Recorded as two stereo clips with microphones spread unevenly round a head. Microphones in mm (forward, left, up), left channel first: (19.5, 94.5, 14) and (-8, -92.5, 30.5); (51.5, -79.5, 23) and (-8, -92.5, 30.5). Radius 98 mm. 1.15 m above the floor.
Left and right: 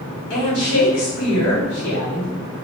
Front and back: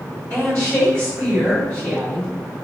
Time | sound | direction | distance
0.3 | a woman speaking | 85° left | 1.8 m